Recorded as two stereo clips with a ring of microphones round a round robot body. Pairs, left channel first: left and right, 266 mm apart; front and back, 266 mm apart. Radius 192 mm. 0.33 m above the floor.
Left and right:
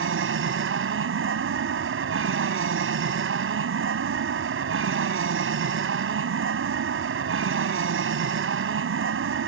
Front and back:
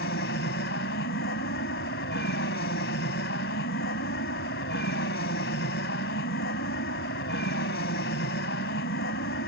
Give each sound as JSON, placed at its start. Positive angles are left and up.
{"t": 0.0, "sound": "an aircraft", "azimuth_deg": -55}